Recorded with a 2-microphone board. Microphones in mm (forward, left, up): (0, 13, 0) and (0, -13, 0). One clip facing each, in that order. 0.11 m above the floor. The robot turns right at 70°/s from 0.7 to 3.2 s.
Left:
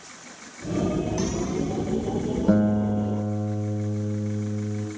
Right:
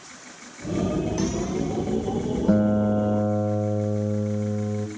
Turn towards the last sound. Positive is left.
turn(degrees=-130)